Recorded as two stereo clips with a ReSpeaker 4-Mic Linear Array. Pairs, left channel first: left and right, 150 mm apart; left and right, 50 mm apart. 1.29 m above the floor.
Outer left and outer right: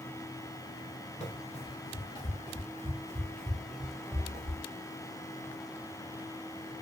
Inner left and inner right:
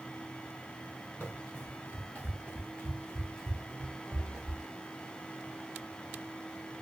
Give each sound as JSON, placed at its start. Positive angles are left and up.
{"t": 1.2, "sound": "running footsteps", "side_deg": 45, "distance_m": 1.8}